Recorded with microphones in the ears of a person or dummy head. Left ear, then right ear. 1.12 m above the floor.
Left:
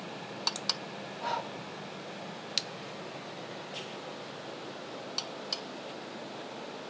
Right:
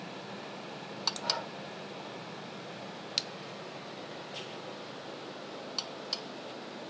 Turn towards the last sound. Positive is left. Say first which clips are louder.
# even
turn(degrees=50)  # may be behind; listen again after turning